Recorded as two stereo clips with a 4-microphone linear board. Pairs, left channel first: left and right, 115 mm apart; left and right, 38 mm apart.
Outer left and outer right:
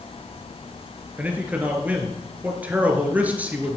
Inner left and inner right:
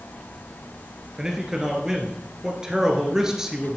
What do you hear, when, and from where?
1.2 s a man speaking: 15° right (ahead or behind), 1.9 m